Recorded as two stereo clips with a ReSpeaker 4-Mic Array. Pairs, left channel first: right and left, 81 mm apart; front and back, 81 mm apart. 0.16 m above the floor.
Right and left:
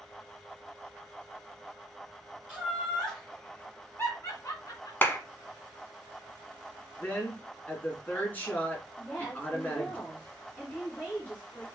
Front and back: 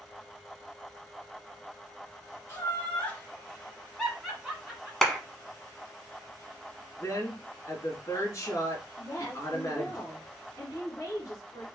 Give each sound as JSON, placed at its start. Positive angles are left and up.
{"t": 2.5, "sound": "laughter", "azimuth_deg": 25, "distance_m": 1.7}
{"t": 5.0, "sound": "a clap", "azimuth_deg": -80, "distance_m": 1.0}
{"t": 7.0, "sound": "a woman speaking", "azimuth_deg": -30, "distance_m": 2.0}
{"t": 9.0, "sound": "a woman speaking", "azimuth_deg": -30, "distance_m": 1.9}